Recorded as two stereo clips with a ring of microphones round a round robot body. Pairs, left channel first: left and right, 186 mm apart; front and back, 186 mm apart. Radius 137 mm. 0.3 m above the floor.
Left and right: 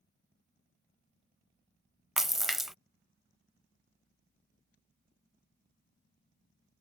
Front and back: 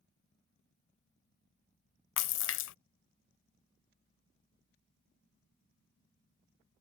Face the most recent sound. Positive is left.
turn(degrees=0)